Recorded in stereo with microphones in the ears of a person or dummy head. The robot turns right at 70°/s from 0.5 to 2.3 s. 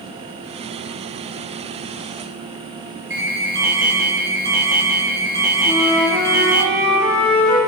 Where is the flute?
5° left (ahead or behind), 6 m.